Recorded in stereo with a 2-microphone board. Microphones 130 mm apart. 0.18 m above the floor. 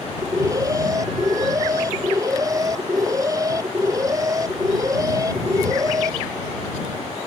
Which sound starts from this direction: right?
An alarm, at 0.2 s.